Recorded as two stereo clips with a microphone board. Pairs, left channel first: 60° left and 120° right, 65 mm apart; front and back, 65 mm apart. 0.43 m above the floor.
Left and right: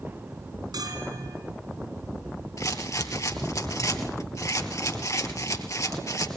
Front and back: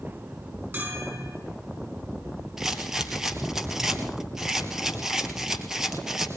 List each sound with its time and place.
0.7 s a bell: 120° right, 6 m
2.6 s a rattle: 100° left, 1.8 m